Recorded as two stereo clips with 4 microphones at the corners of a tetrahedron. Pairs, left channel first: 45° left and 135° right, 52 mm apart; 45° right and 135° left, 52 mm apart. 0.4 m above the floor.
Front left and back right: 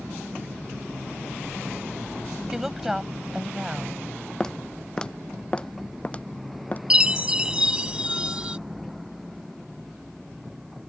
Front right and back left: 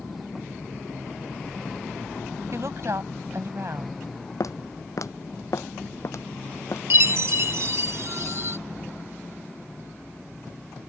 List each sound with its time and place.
2.5 s a woman speaking: 145° left
4.4 s footsteps: 30° right; by 6.8 s 15° right
6.9 s a chime: 155° left